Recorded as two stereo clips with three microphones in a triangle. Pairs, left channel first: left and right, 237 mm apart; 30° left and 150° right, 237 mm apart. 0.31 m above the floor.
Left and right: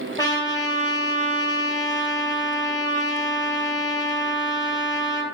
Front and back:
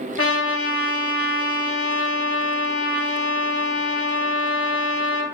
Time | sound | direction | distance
0.2 | a trumpet | 15° left | 0.9 m